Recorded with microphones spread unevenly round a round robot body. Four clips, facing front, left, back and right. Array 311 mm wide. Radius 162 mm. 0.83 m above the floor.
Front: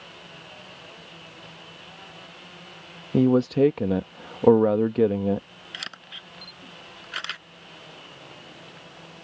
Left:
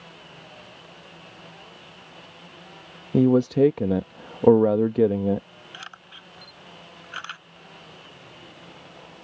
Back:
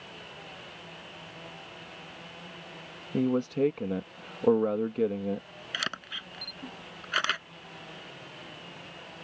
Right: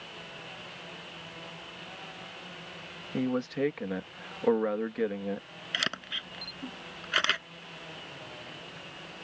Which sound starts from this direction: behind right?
A camera shutter, at 5.7 s.